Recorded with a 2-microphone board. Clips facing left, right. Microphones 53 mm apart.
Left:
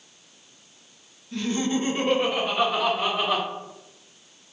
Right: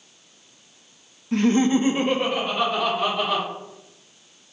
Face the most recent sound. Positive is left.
turn(degrees=10)  # may be behind; listen again after turning